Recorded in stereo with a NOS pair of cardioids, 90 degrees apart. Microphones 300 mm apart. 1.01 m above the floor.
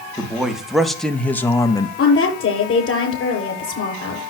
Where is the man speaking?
5° right, 2.5 m; by 1.9 s 20° left, 1.0 m.